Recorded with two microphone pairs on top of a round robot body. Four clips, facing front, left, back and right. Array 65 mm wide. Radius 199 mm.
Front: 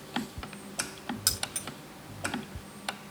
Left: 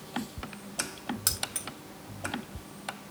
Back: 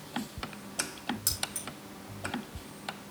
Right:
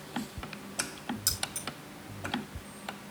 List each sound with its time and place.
1.3 s keys jangling: 70° left, 1.0 m